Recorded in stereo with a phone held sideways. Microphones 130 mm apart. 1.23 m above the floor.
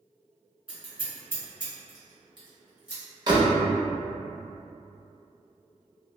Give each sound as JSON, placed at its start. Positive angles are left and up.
{"t": 0.7, "sound": "scissors", "side_deg": -10, "distance_m": 1.6}
{"t": 3.3, "sound": "a door slam", "side_deg": -35, "distance_m": 0.7}